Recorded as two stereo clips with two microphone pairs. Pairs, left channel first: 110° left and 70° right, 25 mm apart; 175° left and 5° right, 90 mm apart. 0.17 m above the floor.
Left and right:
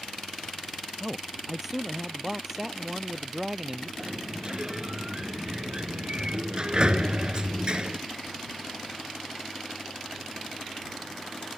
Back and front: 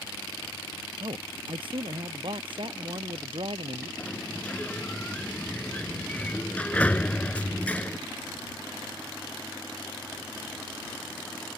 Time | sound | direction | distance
1.0 | a man speaking | 5° left | ?
4.0 | a sliding door | 110° right | ?